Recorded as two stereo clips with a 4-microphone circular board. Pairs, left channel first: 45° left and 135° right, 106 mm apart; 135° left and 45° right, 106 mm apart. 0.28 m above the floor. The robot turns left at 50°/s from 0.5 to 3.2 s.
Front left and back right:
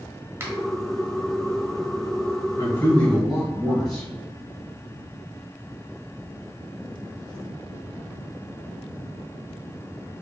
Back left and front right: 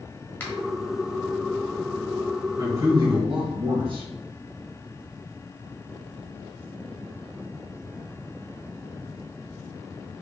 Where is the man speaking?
10° right, 1.8 m; by 4.1 s 40° right, 1.8 m.